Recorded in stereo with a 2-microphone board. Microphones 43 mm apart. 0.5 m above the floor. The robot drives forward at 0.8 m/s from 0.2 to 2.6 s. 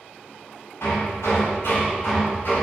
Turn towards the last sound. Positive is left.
turn(degrees=60)  # may be behind; listen again after turning